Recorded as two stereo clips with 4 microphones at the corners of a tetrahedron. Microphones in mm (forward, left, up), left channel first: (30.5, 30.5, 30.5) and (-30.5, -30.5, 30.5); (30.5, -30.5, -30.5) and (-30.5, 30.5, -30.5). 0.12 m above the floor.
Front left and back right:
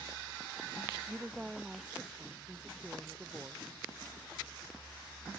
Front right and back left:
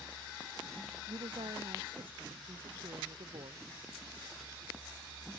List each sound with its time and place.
1.1 s a woman speaking: 145° left